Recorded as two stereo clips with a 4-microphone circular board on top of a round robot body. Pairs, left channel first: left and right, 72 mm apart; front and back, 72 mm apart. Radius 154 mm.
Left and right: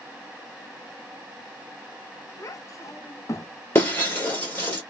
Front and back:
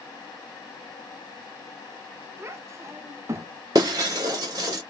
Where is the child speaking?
130° left, 0.8 m.